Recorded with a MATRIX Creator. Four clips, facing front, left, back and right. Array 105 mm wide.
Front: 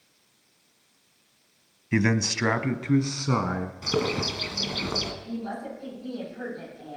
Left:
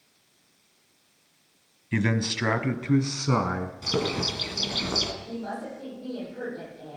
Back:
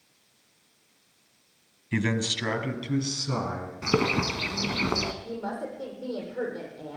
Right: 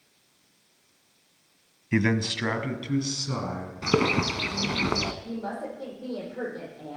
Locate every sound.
1.9 s a man speaking: 45° right, 1.0 m; by 3.7 s 55° left, 1.7 m
3.8 s a bird: 120° right, 1.3 m
5.2 s a woman speaking: 155° right, 9.5 m